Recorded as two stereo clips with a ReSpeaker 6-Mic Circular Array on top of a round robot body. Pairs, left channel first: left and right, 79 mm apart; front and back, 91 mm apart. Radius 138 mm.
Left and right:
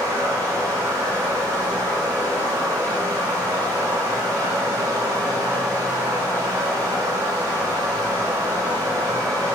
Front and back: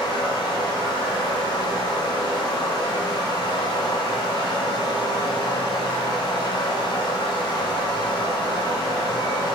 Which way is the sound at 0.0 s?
40° right.